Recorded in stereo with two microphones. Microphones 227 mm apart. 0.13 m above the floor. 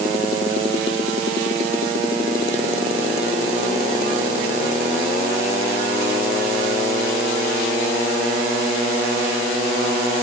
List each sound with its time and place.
Only background noise.